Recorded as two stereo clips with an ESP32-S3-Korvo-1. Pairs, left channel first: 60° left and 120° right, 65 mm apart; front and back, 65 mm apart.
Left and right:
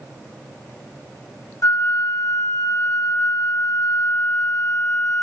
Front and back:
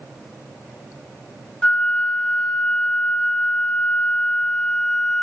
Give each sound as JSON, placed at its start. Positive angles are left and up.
{"t": 1.6, "sound": "a flute", "azimuth_deg": 70, "distance_m": 1.1}